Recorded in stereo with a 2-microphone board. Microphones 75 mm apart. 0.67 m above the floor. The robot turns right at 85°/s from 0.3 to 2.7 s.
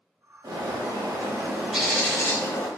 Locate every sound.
0.4 s a bird: 120° right, 0.7 m; by 2.7 s 70° left, 0.7 m